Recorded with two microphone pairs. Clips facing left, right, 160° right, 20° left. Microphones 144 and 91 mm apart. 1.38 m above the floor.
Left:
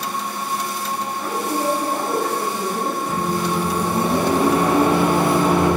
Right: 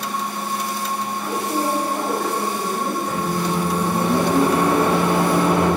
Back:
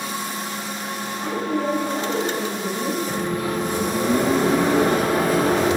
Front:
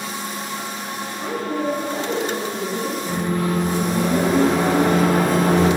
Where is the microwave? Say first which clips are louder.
Left 1 dB, front 2 dB; 30° left, 1.1 m.